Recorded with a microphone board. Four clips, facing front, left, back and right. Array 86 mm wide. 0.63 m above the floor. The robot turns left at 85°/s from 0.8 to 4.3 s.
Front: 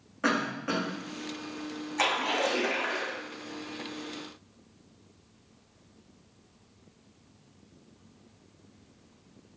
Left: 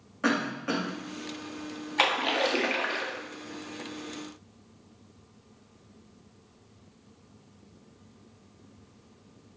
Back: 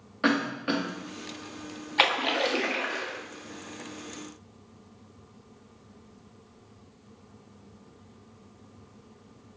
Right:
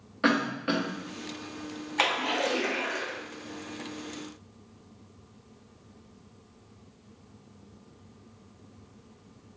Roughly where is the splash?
Behind.